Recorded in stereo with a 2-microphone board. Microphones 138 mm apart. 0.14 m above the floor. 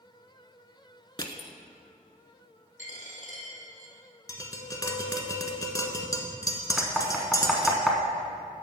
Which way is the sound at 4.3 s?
25° left (ahead or behind).